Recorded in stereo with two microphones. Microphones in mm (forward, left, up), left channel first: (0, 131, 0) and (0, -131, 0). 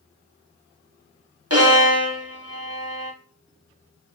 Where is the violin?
65° right (ahead or behind), 1.0 m.